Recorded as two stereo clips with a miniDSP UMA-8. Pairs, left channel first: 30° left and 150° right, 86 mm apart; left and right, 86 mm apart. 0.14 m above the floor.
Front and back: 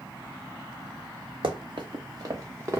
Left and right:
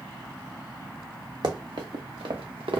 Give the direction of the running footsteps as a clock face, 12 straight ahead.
4 o'clock.